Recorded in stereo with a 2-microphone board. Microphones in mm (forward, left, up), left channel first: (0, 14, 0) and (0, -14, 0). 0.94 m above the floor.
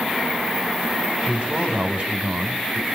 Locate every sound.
1.3 s a man speaking: 40° right (ahead or behind), 3 m